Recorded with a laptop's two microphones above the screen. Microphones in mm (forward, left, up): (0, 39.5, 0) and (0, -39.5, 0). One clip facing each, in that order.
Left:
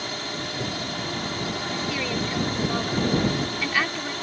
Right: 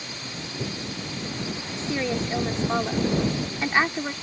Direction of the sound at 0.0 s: 60° left (ahead or behind).